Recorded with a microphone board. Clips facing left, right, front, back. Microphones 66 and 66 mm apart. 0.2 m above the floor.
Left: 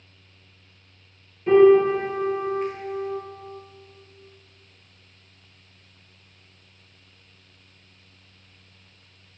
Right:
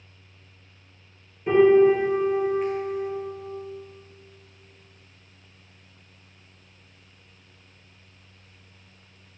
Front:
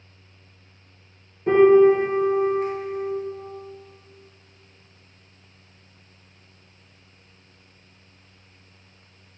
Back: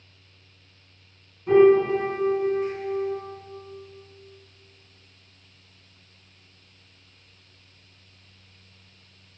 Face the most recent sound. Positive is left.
turn(degrees=-5)